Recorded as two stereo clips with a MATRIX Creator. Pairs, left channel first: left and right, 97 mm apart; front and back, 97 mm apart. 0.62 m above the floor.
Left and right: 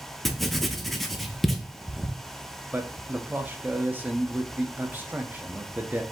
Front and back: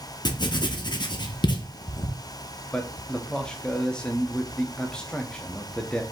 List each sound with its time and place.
0.2 s writing: straight ahead, 0.7 m
2.7 s a man speaking: 65° right, 0.6 m